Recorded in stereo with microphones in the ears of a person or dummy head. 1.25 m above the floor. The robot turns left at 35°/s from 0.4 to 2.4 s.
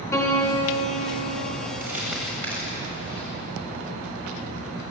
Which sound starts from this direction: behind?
A piano, at 0.1 s.